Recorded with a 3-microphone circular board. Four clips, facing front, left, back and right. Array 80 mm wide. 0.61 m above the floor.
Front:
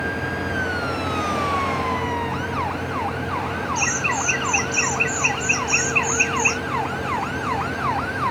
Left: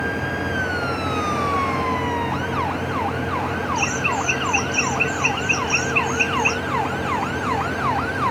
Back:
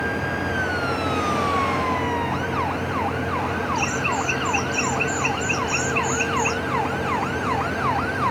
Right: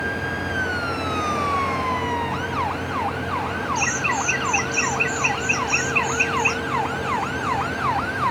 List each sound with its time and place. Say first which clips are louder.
3.8 s laughter: left 1 dB, even; 55° right; by 6.6 s 45° right